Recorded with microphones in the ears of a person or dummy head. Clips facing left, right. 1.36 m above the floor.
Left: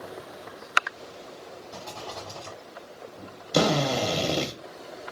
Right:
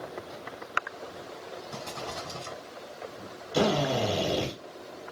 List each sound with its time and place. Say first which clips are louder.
1.7 s a rattle: even; 55° right (ahead or behind), 2 m
3.5 s a drill: left 2 dB; 70° left (ahead or behind), 1.0 m